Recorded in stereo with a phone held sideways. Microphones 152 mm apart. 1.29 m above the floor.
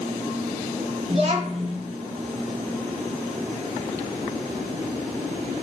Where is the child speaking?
45° right (ahead or behind), 1.2 m.